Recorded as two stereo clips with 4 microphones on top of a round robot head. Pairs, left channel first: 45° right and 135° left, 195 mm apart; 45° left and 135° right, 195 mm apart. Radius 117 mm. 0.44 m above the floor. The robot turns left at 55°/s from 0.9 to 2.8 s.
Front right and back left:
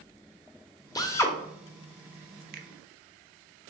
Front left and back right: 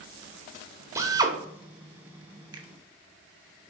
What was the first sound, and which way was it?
A drill, 85° right.